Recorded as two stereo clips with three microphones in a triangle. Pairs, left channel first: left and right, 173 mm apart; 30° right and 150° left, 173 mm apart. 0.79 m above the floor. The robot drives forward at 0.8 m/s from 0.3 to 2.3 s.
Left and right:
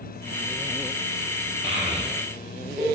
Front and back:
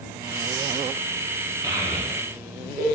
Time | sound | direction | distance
1.6 | a child speaking | 140° right | 0.8 m